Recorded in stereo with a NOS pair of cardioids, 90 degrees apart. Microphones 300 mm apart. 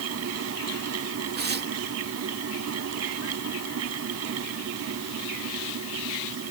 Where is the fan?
55° right.